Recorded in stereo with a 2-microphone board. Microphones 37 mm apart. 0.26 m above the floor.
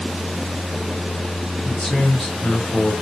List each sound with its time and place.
1.6 s a man speaking: 20° left (ahead or behind), 1.2 m